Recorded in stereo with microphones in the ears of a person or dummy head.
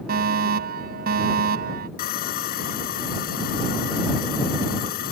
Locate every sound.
0.1 s a fire alarm: 55° right (ahead or behind)
2.0 s sawing: 50° left (ahead or behind)